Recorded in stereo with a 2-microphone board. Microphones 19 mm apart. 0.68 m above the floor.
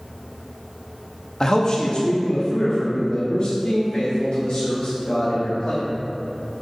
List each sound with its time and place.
1.4 s a man speaking: 30° left (ahead or behind), 0.7 m; by 5.8 s 70° left (ahead or behind), 3 m